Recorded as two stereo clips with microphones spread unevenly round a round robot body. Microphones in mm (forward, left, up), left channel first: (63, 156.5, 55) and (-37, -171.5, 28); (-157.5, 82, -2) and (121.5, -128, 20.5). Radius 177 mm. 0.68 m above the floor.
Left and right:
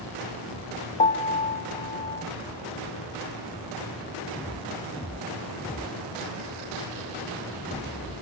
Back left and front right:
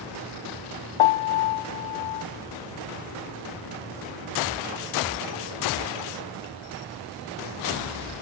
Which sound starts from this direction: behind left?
A piano, at 1.0 s.